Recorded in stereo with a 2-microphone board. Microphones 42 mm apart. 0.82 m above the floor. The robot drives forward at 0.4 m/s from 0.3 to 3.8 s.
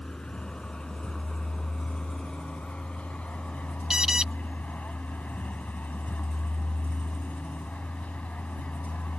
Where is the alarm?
15° right (ahead or behind).